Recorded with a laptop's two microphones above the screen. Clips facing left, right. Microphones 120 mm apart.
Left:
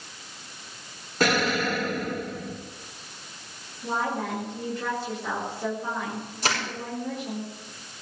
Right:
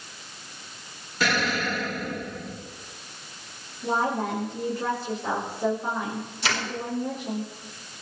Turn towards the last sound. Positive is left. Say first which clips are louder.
# left 1 dB
turn(degrees=45)  # may be behind; listen again after turning